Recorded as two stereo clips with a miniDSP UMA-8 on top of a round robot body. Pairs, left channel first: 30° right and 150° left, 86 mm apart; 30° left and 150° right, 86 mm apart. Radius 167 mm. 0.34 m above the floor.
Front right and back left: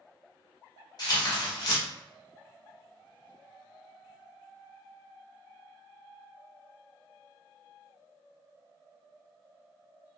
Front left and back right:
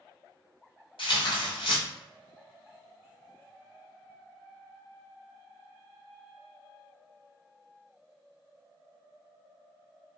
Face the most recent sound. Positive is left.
turn(degrees=15)